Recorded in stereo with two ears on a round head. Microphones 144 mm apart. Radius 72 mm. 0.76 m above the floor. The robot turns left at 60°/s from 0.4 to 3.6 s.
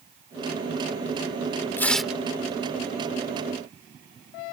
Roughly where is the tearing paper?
Centre.